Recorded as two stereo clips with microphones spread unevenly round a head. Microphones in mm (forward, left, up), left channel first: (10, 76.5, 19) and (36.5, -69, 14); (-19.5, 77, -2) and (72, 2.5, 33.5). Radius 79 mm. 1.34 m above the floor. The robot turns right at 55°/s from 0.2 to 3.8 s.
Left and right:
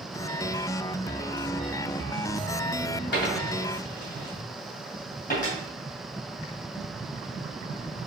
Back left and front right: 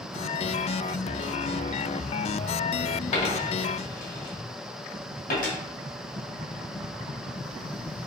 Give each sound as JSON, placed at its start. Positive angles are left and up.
{"t": 3.1, "sound": "a dropped coin", "azimuth_deg": 100, "distance_m": 2.5}